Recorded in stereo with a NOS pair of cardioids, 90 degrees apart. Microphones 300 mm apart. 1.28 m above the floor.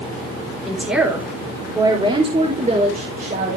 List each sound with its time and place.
0.7 s a woman speaking: straight ahead, 4.5 m; by 3.6 s 35° right, 5 m